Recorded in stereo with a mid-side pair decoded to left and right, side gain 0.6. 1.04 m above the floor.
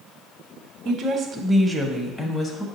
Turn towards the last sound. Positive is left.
turn(degrees=35)